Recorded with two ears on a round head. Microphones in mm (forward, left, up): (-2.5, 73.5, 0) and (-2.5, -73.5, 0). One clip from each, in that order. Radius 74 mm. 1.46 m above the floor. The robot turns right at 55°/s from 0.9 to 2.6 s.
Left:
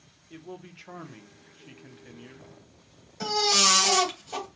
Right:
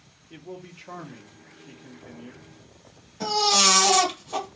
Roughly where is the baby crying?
Left.